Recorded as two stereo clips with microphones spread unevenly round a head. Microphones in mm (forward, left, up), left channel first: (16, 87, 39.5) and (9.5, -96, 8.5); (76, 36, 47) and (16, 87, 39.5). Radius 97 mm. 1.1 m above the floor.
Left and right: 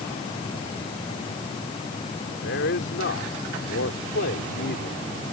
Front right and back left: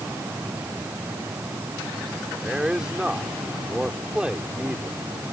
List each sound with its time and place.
2.4 s a man speaking: 60° left